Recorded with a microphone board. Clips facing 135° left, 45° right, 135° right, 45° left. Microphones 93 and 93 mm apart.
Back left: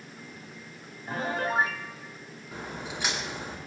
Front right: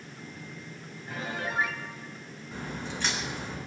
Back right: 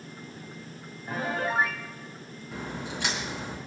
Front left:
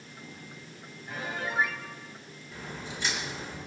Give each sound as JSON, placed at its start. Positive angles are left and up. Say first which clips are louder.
{"t": 1.1, "sound": "a piano", "louder": "back left 5 dB, back right 6 dB", "azimuth_deg": 180, "distance_m": 0.9}
{"t": 2.5, "sound": "a crack", "louder": "front right 1 dB, back right 5 dB", "azimuth_deg": -145, "distance_m": 4.0}